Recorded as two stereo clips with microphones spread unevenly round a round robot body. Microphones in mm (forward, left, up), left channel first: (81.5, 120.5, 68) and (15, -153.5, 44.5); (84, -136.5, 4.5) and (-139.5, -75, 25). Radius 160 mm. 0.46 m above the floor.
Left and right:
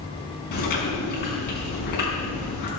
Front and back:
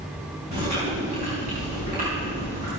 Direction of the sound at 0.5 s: 100° left.